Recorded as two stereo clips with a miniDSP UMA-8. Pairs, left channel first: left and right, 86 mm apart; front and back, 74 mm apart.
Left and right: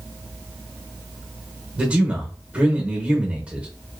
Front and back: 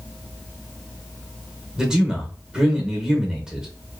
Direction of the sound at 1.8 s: 125° right.